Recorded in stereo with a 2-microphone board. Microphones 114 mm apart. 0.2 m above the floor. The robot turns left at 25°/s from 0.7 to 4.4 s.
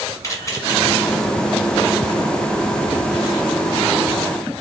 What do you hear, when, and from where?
0.2 s a camera shutter: 30° left (ahead or behind), 1.5 m